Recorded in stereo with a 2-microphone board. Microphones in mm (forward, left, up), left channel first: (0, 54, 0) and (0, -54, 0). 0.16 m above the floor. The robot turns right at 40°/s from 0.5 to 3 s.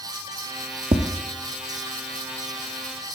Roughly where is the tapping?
Right.